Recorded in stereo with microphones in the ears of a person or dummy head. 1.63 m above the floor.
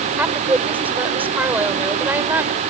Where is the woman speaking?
10° right (ahead or behind).